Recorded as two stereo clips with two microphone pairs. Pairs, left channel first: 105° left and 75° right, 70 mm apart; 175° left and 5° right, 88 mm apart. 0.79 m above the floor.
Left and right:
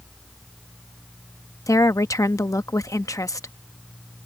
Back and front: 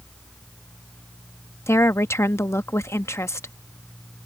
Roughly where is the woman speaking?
Behind left.